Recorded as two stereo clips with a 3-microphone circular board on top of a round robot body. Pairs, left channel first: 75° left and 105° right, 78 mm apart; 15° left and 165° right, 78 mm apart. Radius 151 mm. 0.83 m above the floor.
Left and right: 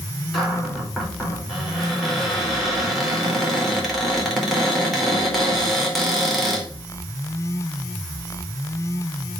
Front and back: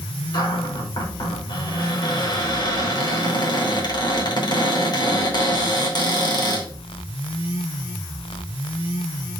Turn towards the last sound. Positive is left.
turn(degrees=-15)